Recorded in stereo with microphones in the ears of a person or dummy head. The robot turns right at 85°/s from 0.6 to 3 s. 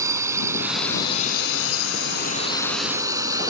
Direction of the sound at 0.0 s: 15° right (ahead or behind).